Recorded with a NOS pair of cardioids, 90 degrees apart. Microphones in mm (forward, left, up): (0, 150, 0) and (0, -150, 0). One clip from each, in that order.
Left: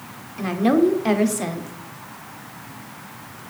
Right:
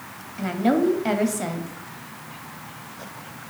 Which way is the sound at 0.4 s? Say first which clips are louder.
Left 3 dB; 10° left.